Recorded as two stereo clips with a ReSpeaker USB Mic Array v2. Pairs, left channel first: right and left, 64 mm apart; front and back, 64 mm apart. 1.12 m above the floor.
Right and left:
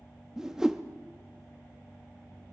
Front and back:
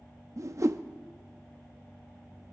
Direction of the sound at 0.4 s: 170° left.